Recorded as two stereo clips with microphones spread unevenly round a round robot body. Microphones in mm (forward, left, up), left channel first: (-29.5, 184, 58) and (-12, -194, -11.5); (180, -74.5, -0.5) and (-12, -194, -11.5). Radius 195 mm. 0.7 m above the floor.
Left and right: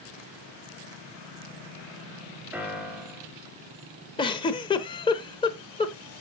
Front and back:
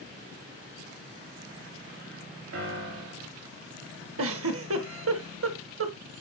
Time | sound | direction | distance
2.5 | a piano | 170° right | 2.5 m
4.2 | a giggle | 165° left | 0.8 m